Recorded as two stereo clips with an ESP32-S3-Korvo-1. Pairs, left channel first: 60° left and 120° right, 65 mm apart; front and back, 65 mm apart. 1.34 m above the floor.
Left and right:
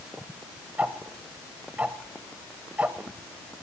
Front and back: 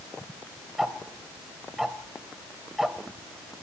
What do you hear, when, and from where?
0.8 s ticking: 100° right, 1.2 m